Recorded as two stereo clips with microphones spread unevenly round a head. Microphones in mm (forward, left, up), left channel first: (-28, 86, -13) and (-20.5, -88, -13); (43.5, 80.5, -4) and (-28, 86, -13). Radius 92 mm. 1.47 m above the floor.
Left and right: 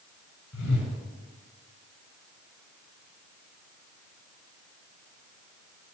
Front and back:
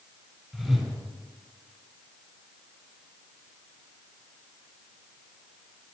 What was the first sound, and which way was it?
A whoosh, 85° left.